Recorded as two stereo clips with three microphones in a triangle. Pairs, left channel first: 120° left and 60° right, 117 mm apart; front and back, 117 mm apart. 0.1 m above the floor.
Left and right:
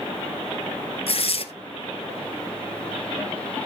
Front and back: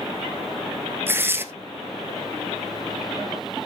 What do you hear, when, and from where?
1.1 s tearing paper: 110° left, 1.2 m